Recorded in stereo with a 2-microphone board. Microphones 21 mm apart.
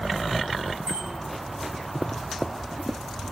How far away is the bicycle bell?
About 9 m.